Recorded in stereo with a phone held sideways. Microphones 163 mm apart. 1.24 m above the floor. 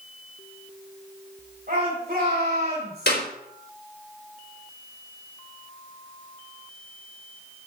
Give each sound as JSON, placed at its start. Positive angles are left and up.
{"t": 1.7, "sound": "a shout", "side_deg": -65, "distance_m": 5.0}
{"t": 3.1, "sound": "a clap", "side_deg": 90, "distance_m": 4.0}